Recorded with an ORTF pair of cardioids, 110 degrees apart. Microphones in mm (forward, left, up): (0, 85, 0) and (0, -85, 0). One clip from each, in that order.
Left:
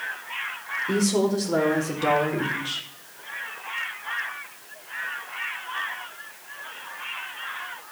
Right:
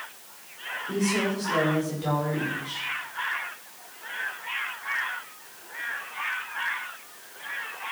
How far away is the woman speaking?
About 6 m.